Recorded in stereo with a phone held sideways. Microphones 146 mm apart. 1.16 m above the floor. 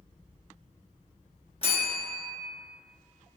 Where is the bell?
40° left (ahead or behind), 0.7 m.